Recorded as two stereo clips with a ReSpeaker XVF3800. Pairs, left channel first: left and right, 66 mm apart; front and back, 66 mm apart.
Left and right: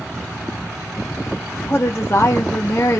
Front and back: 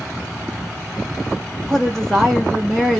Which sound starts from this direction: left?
A woman speaking, at 1.7 s.